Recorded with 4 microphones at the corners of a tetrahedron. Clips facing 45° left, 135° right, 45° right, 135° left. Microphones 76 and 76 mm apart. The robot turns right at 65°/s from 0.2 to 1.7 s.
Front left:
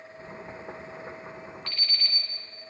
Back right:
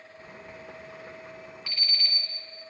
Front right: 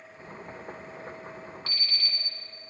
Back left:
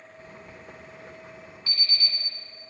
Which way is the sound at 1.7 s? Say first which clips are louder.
Back right 3 dB, back left 6 dB; 50° right.